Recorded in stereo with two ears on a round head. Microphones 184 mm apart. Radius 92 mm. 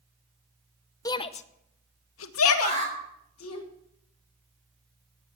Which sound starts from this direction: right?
An alarm, at 2.6 s.